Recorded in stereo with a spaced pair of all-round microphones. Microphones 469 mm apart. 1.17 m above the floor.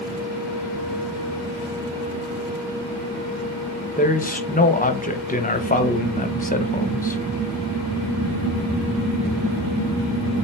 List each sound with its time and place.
4.0 s a man speaking: 20° left (ahead or behind), 0.6 m